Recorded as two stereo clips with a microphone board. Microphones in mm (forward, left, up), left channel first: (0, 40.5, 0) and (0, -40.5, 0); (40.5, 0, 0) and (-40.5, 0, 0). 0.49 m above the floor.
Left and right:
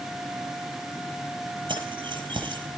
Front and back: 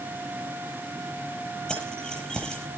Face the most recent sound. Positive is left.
turn(degrees=-80)